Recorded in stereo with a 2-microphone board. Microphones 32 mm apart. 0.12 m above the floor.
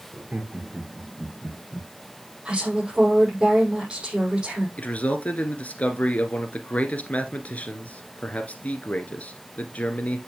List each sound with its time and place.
0.1 s laughter: 60° right (ahead or behind), 3 m; by 1.9 s 30° right (ahead or behind), 2.5 m
2.5 s a woman speaking: 25° right (ahead or behind), 6 m
4.8 s a man speaking: 45° left (ahead or behind), 1.6 m